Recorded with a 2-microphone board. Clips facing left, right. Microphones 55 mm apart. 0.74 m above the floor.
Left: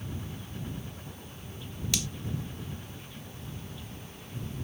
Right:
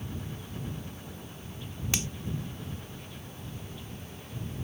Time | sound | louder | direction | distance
1.9 | a finger snap | right 1 dB | 30° right (ahead or behind) | ?